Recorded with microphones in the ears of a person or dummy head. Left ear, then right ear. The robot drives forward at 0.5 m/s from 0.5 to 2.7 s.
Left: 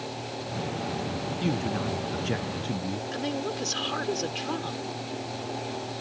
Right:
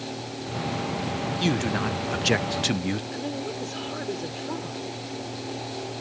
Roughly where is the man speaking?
Right.